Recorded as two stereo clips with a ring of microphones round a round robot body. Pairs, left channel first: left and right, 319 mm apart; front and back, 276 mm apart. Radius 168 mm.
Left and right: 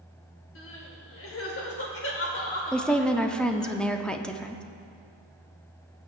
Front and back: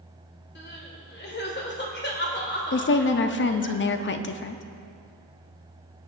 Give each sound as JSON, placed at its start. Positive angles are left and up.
{"t": 0.6, "sound": "crying", "azimuth_deg": 45, "distance_m": 2.0}
{"t": 2.7, "sound": "a woman speaking", "azimuth_deg": 5, "distance_m": 0.7}